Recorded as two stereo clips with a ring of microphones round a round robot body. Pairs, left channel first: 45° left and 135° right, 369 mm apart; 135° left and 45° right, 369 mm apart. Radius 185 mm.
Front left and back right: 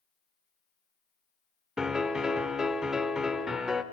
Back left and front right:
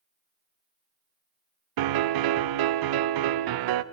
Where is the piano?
45° right, 0.6 m.